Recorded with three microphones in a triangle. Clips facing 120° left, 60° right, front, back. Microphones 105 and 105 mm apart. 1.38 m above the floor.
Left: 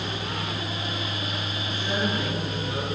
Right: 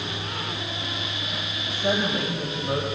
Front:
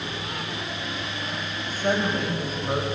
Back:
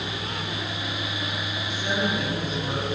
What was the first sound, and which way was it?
A woman speaking, 50° right.